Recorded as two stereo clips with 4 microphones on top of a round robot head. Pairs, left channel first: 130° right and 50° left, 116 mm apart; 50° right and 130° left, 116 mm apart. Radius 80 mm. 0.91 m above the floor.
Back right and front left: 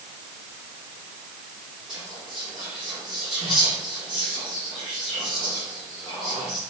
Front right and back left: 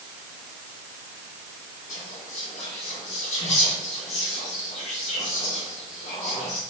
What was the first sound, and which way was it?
Whispering, 40° right.